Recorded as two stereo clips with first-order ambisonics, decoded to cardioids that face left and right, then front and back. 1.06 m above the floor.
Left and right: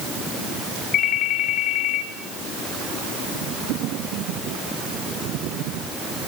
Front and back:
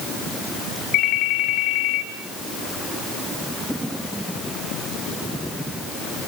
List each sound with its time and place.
0.9 s a ringtone: 35° left, 3.5 m